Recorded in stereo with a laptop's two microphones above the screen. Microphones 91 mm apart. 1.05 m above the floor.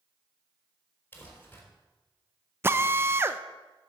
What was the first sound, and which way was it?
Crumpling, 20° left (ahead or behind).